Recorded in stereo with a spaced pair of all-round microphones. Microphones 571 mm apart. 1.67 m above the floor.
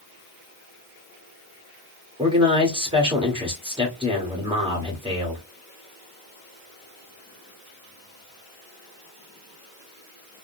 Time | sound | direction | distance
2.2 | a man speaking | 10° right (ahead or behind) | 1.2 m